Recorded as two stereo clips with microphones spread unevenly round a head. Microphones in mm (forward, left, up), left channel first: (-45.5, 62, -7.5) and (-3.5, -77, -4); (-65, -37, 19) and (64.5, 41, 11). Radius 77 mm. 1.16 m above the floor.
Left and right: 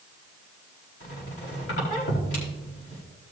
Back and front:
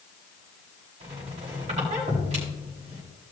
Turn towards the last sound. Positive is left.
turn(degrees=85)